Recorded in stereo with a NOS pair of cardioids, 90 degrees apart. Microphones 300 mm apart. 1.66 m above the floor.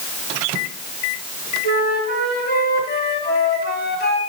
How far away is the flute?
About 3 m.